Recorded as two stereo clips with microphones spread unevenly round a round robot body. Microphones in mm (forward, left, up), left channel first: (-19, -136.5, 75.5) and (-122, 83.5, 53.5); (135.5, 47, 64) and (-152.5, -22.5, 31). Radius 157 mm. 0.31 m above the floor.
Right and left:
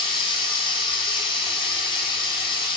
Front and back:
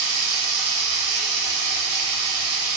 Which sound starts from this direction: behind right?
Running water, at 0.0 s.